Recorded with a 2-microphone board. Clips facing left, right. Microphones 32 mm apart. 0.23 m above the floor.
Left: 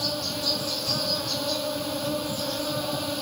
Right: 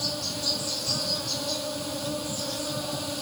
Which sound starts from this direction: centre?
An insect, at 0.0 s.